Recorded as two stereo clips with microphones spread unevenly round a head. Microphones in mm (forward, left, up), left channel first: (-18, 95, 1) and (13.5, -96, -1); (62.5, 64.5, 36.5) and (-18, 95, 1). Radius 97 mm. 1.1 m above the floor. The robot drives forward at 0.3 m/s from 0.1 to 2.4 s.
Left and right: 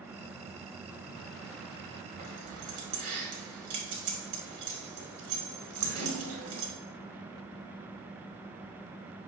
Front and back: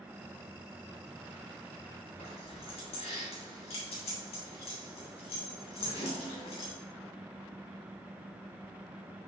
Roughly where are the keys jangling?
Ahead right.